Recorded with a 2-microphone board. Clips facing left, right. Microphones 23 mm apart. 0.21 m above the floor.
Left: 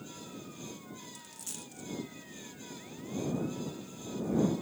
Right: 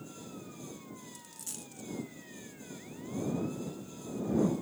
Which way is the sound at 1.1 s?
Centre (ahead or behind).